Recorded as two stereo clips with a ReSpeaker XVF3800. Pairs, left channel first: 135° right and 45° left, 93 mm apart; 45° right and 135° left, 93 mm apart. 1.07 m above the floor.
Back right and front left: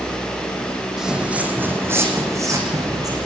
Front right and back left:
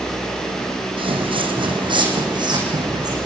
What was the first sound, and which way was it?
Footsteps, 130° left.